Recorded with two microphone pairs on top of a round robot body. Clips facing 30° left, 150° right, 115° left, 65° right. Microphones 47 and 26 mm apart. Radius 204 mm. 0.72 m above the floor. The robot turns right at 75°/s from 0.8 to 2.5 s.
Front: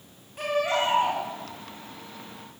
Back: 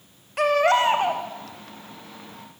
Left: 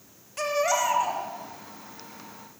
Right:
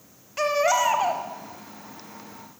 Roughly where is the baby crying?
Behind right.